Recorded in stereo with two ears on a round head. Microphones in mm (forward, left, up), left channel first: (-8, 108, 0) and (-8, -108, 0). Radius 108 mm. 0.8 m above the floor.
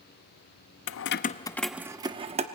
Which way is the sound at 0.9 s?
60° left (ahead or behind).